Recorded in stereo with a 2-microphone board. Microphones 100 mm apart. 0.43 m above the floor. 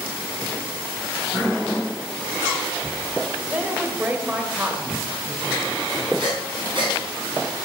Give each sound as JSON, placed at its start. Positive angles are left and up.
{"t": 3.5, "sound": "a woman speaking", "side_deg": -15, "distance_m": 1.7}
{"t": 6.2, "sound": "breathing", "side_deg": -55, "distance_m": 4.5}